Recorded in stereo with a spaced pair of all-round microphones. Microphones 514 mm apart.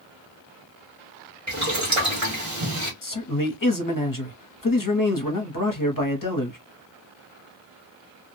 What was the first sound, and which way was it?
Boiling, 30° right (ahead or behind).